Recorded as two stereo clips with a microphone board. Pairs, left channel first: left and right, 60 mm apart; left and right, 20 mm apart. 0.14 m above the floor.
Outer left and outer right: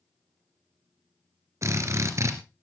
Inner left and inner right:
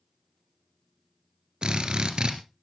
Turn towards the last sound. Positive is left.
turn(degrees=-55)  # may be behind; listen again after turning